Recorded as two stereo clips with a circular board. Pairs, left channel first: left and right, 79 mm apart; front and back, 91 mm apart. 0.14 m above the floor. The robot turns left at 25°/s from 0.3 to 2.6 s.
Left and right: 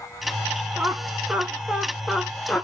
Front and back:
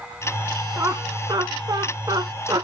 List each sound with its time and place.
0.8 s laughter: 140° right, 1.6 m; by 2.6 s 175° left, 1.6 m